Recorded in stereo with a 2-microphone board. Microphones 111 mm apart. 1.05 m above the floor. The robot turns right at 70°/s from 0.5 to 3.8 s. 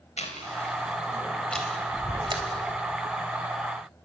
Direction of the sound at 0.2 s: 80° left.